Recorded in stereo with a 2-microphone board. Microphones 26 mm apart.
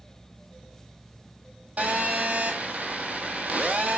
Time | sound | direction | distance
1.8 | a phone buzzing | 70° right (ahead or behind) | 0.9 m